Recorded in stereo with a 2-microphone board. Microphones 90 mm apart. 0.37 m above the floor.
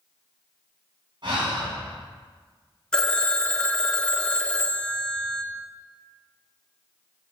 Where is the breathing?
60° right (ahead or behind), 3 m.